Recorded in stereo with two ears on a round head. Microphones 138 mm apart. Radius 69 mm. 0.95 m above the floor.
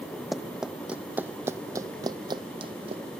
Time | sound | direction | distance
0.3 | running footsteps | centre (ahead or behind) | ?